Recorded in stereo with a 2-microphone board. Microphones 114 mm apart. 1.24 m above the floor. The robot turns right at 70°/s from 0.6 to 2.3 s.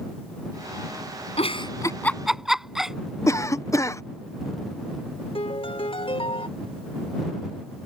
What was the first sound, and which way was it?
A giggle, 60° left (ahead or behind).